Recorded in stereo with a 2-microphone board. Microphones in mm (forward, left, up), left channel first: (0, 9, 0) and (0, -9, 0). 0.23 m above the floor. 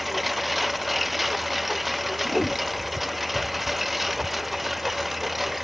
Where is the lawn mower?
5° right (ahead or behind); by 5.6 s 10° right (ahead or behind).